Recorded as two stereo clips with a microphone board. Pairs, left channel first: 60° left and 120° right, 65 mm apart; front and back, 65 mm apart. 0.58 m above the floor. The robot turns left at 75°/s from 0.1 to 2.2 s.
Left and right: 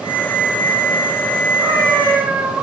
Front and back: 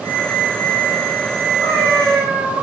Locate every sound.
1.6 s a cat meowing: 125° right, 4.5 m; by 2.6 s 170° right, 4.5 m